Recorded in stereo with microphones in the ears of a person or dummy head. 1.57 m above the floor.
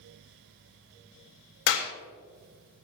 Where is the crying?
No crying in this recording.